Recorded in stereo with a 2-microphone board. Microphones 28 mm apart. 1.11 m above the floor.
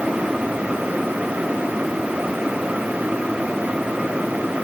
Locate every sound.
Only background noise.